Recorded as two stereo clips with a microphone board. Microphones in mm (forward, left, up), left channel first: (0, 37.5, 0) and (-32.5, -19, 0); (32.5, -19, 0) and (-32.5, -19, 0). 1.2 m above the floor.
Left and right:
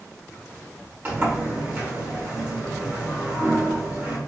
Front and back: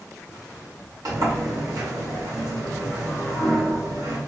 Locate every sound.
1.1 s a sliding door: straight behind, 1.5 m